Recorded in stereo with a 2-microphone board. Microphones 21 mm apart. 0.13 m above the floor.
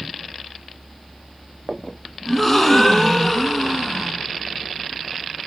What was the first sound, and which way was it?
A gasp, 5° left (ahead or behind).